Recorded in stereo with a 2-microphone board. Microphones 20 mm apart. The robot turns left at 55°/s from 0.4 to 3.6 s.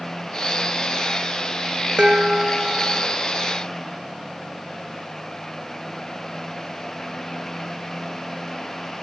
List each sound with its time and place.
2.0 s dishes clattering: 65° right, 3.5 m; by 3.1 s 125° right, 3.5 m